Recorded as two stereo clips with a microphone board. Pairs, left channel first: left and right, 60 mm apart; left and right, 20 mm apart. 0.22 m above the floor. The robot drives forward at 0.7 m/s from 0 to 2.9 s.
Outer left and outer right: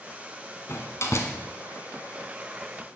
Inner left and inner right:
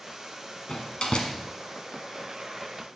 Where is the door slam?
55° left (ahead or behind), 1.4 m.